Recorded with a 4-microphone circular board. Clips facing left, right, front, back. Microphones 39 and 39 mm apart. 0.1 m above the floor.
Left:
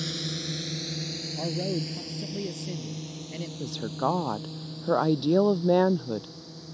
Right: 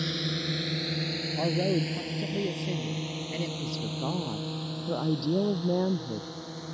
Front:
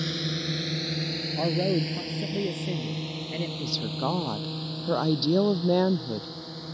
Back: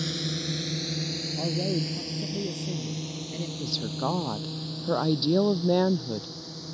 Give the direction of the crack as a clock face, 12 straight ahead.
No crack in this recording.